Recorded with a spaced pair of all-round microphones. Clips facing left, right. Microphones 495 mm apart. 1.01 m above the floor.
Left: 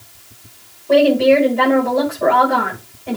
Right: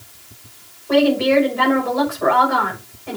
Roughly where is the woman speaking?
Left.